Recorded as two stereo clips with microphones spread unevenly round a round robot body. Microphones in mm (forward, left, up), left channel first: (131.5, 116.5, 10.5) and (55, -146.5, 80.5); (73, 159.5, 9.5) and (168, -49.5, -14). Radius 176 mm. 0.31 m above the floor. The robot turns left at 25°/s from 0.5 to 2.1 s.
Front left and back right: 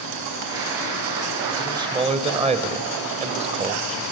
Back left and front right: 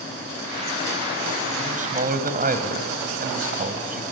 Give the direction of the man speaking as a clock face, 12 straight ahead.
1 o'clock.